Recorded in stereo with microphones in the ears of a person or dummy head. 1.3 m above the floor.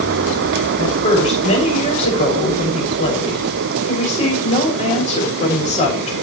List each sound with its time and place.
0.8 s a woman speaking: 35° left (ahead or behind), 7 m